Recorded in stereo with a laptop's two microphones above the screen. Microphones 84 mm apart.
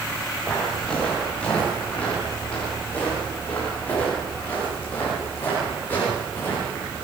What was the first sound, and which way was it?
Footsteps, 10° left (ahead or behind).